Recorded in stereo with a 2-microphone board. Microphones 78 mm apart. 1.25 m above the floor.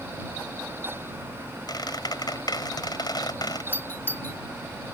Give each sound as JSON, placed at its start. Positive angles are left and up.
{"t": 1.7, "sound": "a squeak", "side_deg": 60}
{"t": 3.7, "sound": "a doorbell", "side_deg": 30}